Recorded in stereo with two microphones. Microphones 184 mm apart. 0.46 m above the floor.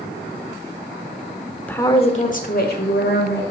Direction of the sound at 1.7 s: 10° left (ahead or behind).